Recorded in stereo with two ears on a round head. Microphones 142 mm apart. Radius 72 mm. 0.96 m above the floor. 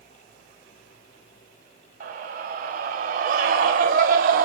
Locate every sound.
2.0 s a scream: 55° right (ahead or behind), 5.5 m; by 4.5 s 60° right (ahead or behind), 4 m